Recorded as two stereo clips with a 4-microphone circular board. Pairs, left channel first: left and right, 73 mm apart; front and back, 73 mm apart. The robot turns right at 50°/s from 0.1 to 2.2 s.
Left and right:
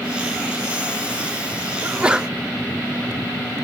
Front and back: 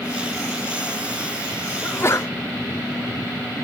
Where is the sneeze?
35° right, 0.6 m; by 2.3 s 15° right, 0.6 m.